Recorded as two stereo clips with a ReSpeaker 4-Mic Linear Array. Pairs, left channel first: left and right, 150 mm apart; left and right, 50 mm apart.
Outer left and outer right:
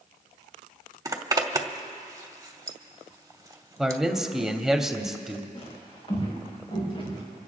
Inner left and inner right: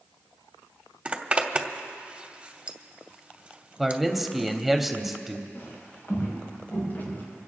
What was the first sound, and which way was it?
A zipper, 25° right (ahead or behind).